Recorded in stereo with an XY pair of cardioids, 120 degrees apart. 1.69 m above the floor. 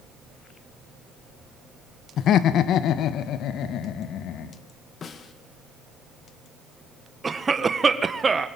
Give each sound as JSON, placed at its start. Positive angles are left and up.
{"t": 2.2, "sound": "laughter", "azimuth_deg": 60, "distance_m": 1.2}
{"t": 5.0, "sound": "a snare drum", "azimuth_deg": 45, "distance_m": 2.0}
{"t": 7.2, "sound": "a cough", "azimuth_deg": -25, "distance_m": 1.9}